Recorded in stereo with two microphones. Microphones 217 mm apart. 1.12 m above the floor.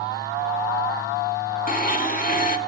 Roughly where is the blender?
Left.